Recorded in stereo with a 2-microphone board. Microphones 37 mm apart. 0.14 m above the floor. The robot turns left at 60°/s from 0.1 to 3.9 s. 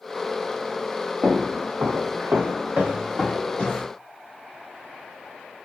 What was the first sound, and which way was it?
Footsteps, 25° right (ahead or behind).